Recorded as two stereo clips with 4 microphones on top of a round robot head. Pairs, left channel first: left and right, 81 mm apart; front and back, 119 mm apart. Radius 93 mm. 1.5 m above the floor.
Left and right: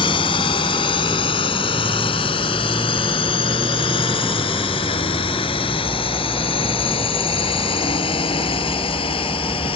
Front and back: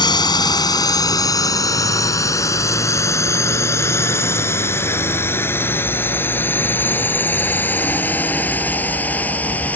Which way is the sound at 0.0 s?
55° left.